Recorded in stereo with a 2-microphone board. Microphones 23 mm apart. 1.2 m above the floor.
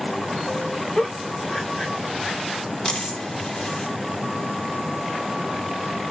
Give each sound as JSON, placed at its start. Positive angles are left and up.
{"t": 0.9, "sound": "a giggle", "side_deg": 25, "distance_m": 2.0}
{"t": 2.9, "sound": "a dropped coin", "side_deg": 40, "distance_m": 0.9}